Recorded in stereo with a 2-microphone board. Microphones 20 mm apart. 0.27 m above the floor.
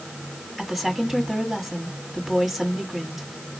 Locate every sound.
0.6 s a woman speaking: 5° right (ahead or behind), 1.9 m